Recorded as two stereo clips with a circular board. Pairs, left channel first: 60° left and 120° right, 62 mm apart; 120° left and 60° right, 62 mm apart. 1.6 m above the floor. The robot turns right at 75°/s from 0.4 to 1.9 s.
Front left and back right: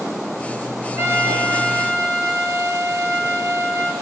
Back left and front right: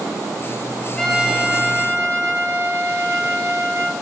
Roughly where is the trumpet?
Behind.